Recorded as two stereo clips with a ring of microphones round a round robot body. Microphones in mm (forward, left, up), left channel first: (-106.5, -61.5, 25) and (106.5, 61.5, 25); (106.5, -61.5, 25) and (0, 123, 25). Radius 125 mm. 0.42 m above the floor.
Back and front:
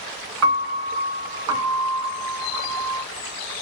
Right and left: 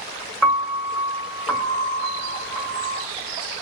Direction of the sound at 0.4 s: 35° left.